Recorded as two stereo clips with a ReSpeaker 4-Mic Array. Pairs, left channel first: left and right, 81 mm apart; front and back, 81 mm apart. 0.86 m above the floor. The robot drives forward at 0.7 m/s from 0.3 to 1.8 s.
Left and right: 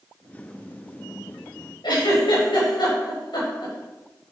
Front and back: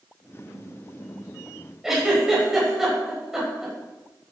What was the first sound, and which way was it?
A giggle, 95° left.